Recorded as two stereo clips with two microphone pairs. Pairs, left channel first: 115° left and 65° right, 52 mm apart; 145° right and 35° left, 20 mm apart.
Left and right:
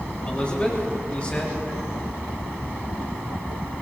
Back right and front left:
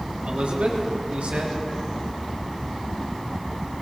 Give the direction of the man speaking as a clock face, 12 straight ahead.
10 o'clock.